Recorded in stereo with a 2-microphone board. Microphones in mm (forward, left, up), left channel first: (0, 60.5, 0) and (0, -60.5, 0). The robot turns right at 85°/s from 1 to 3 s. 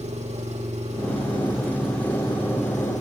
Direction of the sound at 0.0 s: 75° right.